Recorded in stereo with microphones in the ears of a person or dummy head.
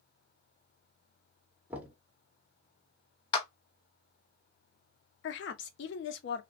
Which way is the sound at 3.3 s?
30° left (ahead or behind).